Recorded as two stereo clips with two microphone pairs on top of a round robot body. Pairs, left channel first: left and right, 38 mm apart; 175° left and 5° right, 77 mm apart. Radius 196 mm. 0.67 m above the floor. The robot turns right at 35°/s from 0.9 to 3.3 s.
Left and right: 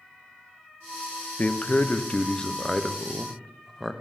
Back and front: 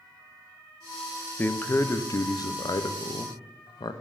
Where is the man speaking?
105° left, 0.6 m; by 3.9 s 170° left, 0.6 m.